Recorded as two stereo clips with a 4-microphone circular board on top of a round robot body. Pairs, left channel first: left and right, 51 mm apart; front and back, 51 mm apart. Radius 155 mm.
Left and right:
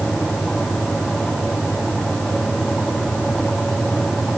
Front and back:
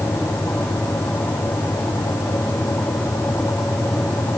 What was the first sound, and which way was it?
Only background noise.